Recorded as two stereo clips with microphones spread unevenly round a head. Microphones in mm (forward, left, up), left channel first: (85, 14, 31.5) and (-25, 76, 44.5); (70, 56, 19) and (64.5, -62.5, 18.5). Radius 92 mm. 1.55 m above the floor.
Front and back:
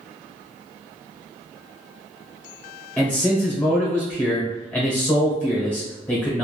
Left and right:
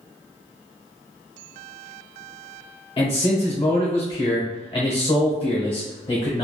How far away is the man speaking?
About 0.9 m.